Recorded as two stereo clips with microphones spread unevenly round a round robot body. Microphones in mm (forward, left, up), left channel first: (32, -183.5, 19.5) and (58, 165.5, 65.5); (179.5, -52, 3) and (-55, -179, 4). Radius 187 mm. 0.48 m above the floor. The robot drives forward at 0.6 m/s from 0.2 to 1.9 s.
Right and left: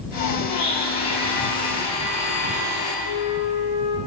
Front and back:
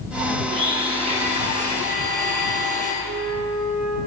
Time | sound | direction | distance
0.5 | a blender | 80° right | 6 m
3.0 | a flute | 130° right | 4.5 m